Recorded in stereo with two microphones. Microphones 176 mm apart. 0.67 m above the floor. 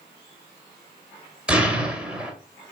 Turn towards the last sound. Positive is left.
turn(degrees=-5)  # may be behind; listen again after turning